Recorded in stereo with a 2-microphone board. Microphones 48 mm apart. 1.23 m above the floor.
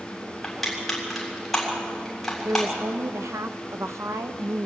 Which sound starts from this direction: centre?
Crushing, at 0.4 s.